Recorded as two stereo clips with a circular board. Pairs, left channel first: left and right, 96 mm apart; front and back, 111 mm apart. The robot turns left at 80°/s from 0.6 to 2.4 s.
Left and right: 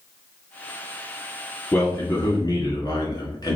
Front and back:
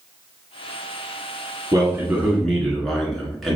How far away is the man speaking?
About 1.5 m.